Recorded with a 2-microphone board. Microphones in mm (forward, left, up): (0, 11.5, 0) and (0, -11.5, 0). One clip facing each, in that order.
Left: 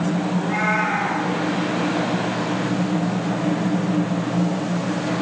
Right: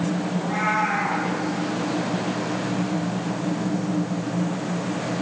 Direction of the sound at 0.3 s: 15° left (ahead or behind).